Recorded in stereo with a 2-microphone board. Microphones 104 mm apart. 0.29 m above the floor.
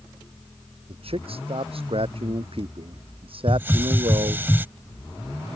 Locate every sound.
0.9 s a man speaking: 65° right (ahead or behind); by 4.5 s 55° right (ahead or behind)
3.5 s a hiss: 20° right (ahead or behind)